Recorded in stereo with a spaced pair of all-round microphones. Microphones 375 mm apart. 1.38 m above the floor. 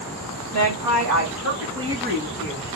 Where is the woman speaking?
50° right (ahead or behind), 1.6 m; by 2.7 s 30° right (ahead or behind), 2.5 m.